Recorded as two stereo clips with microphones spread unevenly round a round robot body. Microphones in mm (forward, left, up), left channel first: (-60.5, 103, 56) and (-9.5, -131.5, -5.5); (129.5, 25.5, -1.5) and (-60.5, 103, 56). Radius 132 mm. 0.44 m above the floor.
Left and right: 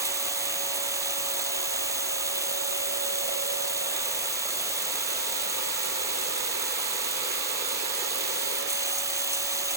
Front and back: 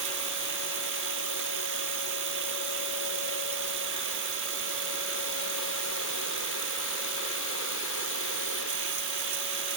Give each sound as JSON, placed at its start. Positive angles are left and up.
{"t": 0.0, "sound": "running water", "azimuth_deg": -155}